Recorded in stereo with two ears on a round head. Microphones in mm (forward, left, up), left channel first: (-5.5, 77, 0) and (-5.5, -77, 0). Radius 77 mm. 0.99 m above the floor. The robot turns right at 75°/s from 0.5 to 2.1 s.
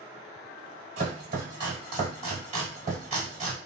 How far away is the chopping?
About 1.9 m.